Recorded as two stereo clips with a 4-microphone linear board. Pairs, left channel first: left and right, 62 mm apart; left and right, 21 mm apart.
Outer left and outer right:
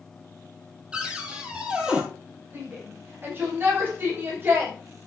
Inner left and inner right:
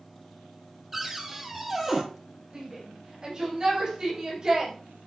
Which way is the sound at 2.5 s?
35° right (ahead or behind).